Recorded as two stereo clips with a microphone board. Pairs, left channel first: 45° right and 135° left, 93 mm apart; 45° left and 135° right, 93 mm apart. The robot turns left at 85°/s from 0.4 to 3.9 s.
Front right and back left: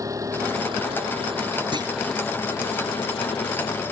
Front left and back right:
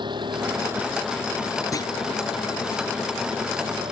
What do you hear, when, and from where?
0.0 s an engine running: 170° right; by 3.9 s 110° right
1.7 s a clunk: 100° left; by 1.9 s 85° left